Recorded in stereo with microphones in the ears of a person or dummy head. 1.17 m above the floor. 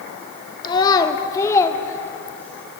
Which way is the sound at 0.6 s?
20° left (ahead or behind).